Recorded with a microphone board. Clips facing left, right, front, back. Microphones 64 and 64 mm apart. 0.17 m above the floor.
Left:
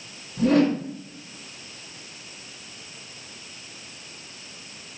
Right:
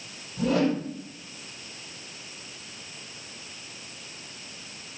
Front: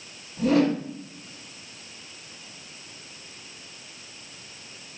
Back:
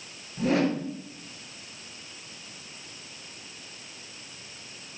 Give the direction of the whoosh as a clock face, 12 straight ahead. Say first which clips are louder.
Left 5 dB, front 4 dB; 8 o'clock.